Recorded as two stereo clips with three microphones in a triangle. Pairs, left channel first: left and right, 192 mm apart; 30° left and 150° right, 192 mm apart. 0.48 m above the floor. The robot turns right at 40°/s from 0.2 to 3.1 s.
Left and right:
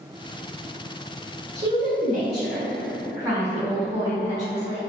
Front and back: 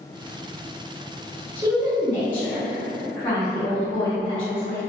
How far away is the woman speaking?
About 1.0 m.